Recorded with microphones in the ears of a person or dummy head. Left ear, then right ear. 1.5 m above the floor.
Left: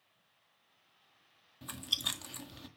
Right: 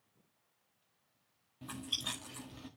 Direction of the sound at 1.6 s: 25° left (ahead or behind).